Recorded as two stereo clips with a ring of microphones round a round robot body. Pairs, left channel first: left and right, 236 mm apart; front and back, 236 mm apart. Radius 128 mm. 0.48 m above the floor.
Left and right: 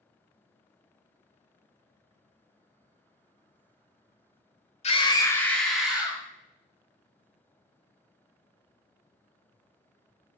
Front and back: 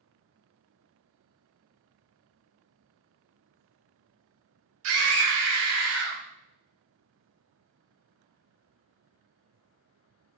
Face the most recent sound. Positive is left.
turn(degrees=-170)